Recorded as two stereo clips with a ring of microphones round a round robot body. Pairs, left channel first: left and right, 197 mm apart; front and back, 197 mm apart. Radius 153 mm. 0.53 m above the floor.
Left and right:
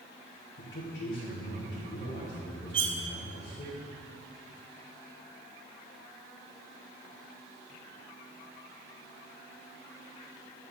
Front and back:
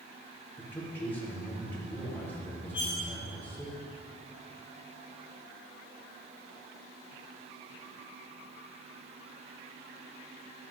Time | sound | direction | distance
0.6 | a man speaking | 80° left | 2.5 m
2.7 | cutlery clinking | 70° right | 0.8 m